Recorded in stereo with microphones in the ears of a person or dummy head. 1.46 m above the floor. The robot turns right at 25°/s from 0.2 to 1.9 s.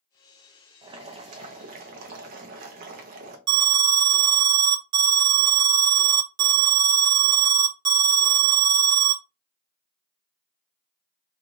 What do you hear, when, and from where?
0.8 s boiling: 20° right (ahead or behind), 0.6 m; by 3.4 s 45° right (ahead or behind), 0.6 m
3.5 s an alarm: 50° right (ahead or behind), 0.6 m